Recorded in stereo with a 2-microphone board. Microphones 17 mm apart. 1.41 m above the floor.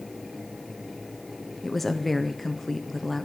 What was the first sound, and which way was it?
A woman speaking, centre (ahead or behind).